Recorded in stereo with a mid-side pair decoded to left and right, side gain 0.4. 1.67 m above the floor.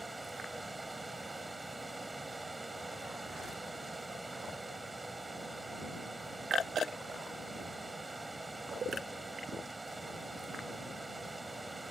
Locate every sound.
0.0 s running water: 20° right